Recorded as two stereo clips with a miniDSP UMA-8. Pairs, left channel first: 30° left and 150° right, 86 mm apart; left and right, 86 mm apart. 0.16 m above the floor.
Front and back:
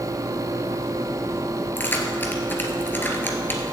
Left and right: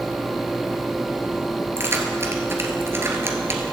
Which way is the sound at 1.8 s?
35° right.